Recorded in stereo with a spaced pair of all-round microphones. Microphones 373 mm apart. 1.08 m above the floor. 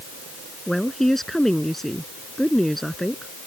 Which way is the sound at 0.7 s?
Centre (ahead or behind).